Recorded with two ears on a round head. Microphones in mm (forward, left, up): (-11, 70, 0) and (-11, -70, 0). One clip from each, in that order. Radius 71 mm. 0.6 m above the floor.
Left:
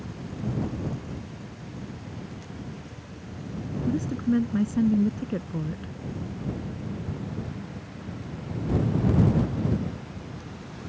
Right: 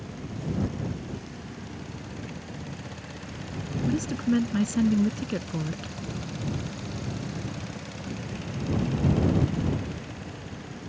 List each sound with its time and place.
3.9 s a woman speaking: 80° right